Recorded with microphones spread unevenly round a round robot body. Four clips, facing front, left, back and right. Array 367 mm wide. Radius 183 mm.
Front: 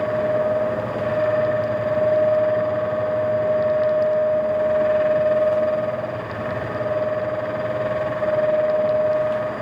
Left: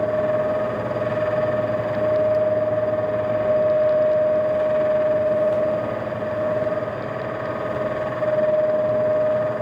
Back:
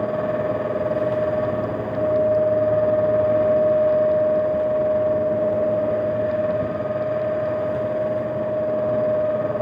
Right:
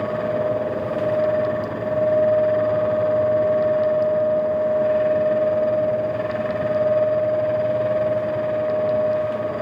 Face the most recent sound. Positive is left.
No sound to turn to.